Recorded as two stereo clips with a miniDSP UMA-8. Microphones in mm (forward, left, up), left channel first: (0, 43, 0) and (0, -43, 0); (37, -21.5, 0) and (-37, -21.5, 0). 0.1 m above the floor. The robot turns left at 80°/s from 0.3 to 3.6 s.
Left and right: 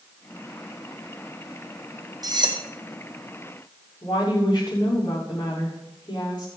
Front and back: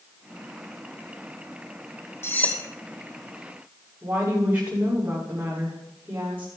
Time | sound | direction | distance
2.2 | cutlery clinking | 55° right | 2 m
4.0 | a woman speaking | 115° left | 7.5 m